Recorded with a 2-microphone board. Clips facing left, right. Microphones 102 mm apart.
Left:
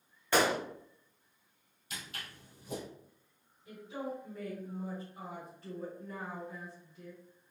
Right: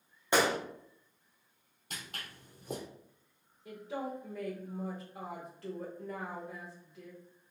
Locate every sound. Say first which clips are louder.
0.3 s a gunshot: even; 20° right (ahead or behind), 1.6 m
1.9 s footsteps: even; 50° right (ahead or behind), 2.0 m
3.6 s a woman speaking: right 2 dB; 75° right (ahead or behind), 1.6 m